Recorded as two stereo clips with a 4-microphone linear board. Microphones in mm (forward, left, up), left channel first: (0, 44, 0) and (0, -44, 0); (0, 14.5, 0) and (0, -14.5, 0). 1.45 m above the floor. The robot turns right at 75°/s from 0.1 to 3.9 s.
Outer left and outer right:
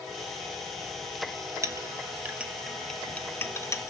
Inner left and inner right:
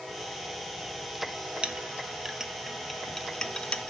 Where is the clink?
35° right (ahead or behind), 0.6 m; by 3.9 s 35° left (ahead or behind), 0.6 m.